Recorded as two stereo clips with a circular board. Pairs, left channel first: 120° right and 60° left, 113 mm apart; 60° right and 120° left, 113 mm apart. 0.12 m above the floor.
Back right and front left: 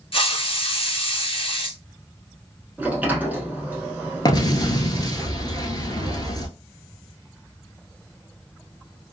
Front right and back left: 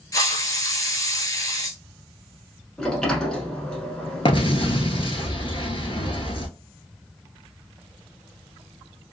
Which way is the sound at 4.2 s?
80° right.